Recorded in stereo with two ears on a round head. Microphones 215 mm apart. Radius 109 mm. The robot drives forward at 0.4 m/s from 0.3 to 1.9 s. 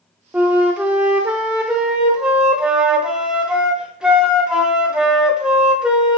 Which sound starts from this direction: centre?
A flute, at 0.3 s.